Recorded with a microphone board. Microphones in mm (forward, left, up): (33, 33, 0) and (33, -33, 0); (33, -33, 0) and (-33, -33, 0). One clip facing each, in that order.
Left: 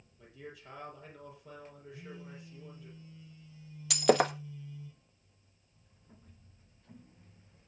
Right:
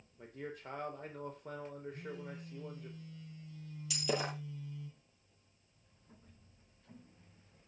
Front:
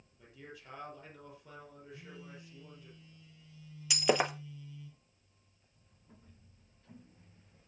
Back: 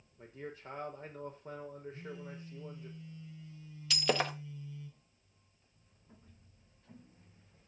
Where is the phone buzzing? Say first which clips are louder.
Right 3 dB, back 4 dB; 115° right, 6.5 m.